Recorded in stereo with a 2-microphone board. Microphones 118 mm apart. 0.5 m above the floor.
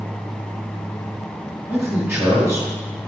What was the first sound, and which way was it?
A man speaking, 20° right (ahead or behind).